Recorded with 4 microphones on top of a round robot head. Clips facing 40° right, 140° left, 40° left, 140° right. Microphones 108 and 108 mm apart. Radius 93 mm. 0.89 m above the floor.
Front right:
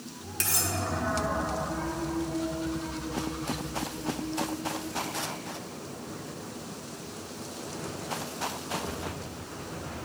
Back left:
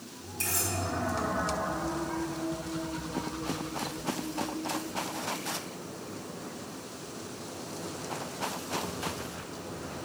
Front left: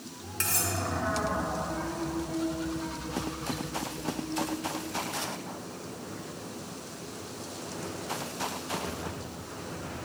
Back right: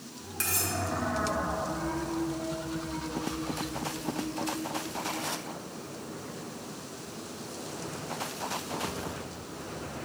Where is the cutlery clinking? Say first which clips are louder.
Front right 1 dB, front left 1 dB; 50° right, 1.7 m.